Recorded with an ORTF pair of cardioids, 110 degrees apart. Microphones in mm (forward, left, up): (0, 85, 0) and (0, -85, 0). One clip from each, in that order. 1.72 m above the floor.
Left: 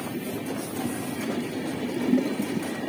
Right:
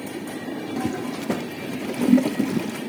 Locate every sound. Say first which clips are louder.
0.8 s a toilet flushing: right 3 dB; 35° right, 0.9 m